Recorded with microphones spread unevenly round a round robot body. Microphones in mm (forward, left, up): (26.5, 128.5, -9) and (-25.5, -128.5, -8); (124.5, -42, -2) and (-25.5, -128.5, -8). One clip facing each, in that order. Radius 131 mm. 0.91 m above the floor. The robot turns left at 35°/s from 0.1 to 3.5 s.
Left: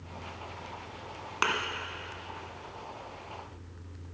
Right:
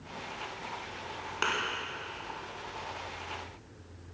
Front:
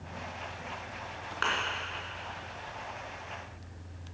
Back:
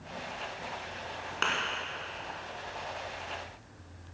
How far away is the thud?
About 1.4 m.